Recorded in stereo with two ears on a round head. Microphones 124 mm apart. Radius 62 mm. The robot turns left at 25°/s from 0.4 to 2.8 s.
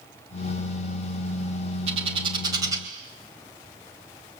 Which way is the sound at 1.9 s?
45° right (ahead or behind).